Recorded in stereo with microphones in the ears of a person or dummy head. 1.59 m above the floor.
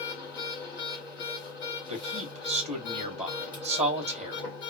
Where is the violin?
I don't hear a violin.